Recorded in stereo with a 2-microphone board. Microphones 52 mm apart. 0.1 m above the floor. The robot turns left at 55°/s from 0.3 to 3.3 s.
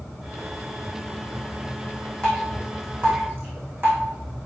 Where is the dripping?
15° left (ahead or behind), 3.5 m; by 4.0 s 40° right (ahead or behind), 3.5 m.